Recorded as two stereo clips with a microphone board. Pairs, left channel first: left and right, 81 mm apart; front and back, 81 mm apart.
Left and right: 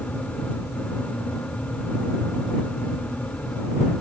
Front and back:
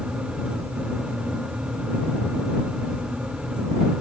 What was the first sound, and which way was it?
Only background noise.